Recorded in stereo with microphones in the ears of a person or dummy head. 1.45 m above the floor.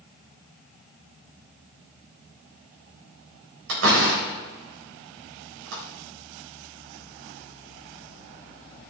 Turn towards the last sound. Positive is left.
turn(degrees=-80)